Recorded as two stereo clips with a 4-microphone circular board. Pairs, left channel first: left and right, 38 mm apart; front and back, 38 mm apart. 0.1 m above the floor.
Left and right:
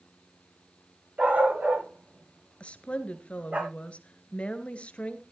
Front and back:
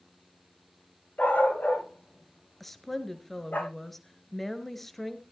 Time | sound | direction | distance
1.2 | a dog barking | 45° right | 9.5 m
2.6 | a woman speaking | 80° left | 1.4 m